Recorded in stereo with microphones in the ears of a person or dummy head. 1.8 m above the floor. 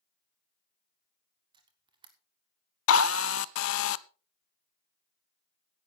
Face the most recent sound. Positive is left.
turn(degrees=75)  # may be behind; listen again after turning